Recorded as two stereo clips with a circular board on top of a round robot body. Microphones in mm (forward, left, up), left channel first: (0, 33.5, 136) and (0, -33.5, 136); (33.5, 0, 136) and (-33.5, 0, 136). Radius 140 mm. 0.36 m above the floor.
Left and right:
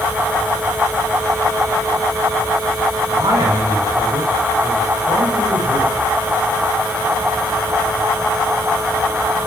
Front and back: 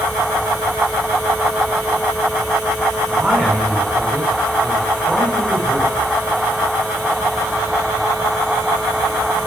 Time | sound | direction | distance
3.1 | a man speaking | 100° right | 5.5 m